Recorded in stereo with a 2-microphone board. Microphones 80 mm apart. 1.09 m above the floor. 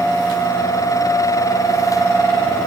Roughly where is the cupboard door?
No cupboard door in this recording.